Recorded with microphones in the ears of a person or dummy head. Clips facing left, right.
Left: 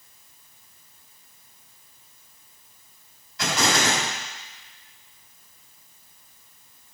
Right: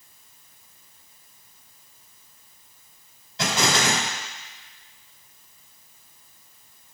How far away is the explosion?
About 4 m.